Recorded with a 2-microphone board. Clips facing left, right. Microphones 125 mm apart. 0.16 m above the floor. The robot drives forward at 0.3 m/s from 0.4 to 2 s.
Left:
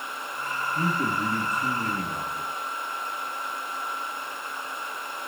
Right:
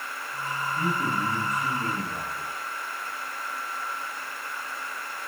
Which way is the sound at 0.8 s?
35° left (ahead or behind).